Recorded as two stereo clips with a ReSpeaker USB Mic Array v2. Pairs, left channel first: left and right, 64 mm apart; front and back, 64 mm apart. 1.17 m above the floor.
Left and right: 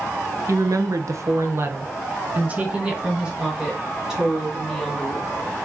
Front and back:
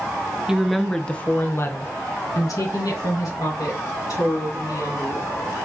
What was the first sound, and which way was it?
A woman speaking, 100° right.